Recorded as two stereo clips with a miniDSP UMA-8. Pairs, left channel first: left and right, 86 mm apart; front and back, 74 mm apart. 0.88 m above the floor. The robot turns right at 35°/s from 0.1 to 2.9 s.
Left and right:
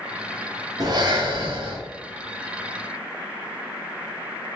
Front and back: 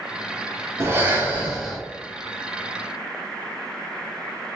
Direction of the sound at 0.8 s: 130° right.